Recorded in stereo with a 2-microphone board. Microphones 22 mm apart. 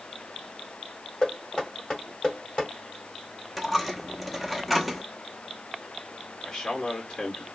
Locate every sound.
1.2 s knocking: 25° left (ahead or behind), 2 m
3.6 s a dropped coin: 5° right (ahead or behind), 0.7 m
6.4 s a man speaking: 25° left (ahead or behind), 1.5 m